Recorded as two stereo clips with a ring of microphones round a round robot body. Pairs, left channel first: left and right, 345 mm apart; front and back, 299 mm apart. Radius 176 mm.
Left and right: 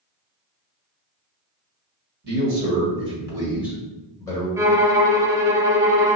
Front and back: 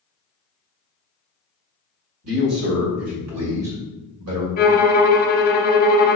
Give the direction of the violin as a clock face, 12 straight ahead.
1 o'clock.